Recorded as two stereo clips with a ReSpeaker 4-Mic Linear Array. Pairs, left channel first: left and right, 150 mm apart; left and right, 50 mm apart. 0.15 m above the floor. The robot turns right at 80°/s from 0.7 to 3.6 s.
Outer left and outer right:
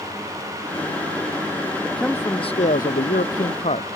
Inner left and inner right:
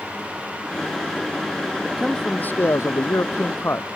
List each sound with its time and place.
1.8 s a man speaking: 10° right; by 4.0 s 130° left